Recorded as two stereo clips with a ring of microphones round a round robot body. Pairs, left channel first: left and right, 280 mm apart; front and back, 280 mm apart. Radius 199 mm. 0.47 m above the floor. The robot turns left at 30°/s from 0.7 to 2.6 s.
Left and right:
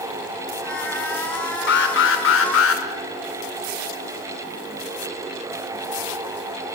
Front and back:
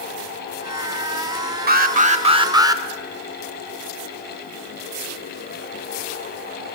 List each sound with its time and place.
1.7 s an alarm: 135° left, 2 m; by 2.8 s 105° left, 2 m